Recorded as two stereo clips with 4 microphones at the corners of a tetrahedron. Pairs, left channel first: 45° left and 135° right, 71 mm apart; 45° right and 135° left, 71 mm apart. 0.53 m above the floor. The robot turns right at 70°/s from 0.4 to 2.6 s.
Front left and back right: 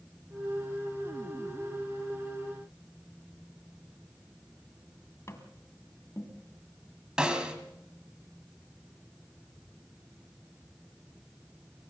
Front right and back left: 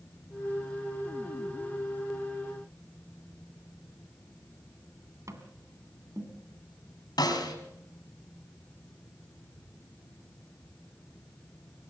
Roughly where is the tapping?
Left.